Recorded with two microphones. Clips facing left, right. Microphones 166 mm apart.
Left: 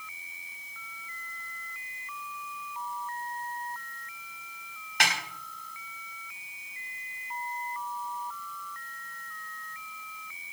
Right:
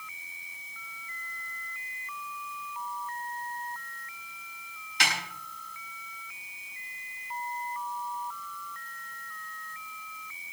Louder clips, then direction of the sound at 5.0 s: Left 2 dB; 65° left (ahead or behind).